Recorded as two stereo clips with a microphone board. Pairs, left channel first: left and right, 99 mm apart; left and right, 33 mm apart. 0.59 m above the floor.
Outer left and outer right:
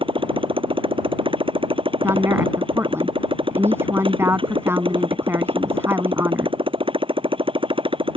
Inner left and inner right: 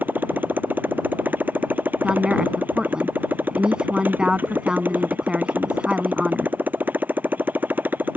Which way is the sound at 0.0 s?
60° right (ahead or behind).